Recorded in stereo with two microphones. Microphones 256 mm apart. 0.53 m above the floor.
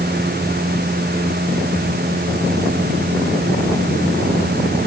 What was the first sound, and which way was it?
Only background noise.